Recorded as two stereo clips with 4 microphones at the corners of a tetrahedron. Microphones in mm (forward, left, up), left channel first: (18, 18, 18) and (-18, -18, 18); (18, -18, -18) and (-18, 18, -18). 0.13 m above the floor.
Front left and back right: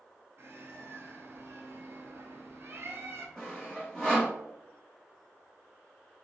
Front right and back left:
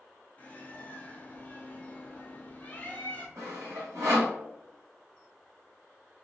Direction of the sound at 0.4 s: 105° right.